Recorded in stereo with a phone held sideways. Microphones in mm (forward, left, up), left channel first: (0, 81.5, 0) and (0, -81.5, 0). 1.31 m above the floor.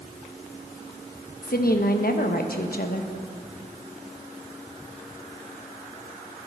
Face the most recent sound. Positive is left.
turn(degrees=75)  # may be behind; listen again after turning